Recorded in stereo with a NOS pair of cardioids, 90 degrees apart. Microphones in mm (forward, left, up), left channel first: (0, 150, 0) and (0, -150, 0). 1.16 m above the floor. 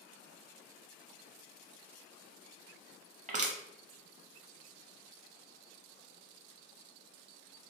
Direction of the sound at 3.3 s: 25° right.